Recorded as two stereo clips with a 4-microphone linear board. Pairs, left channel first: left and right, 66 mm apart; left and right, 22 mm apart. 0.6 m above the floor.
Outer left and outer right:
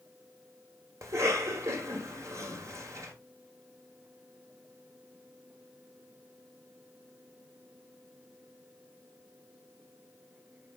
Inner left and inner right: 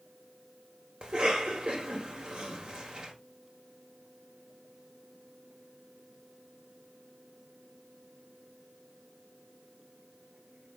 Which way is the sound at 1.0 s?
50° right (ahead or behind).